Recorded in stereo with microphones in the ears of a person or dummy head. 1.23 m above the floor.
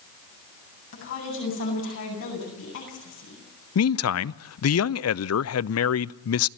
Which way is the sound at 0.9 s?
65° left (ahead or behind).